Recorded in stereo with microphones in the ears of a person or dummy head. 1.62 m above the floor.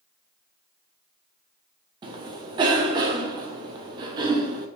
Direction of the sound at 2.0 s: 30° right (ahead or behind).